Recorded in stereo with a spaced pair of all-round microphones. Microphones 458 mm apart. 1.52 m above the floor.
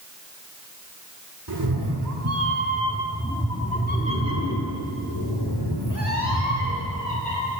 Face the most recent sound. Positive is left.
turn(degrees=65)  # may be behind; listen again after turning